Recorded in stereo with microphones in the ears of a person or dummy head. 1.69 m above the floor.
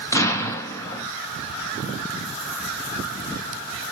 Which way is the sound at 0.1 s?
20° left (ahead or behind).